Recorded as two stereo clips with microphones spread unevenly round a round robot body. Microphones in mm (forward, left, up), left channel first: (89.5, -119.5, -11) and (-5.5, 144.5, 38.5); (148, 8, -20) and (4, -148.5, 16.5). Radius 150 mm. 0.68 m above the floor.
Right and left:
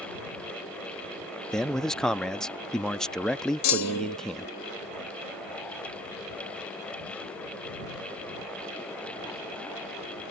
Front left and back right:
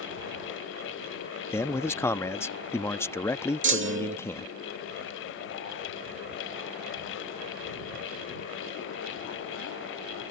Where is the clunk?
100° right.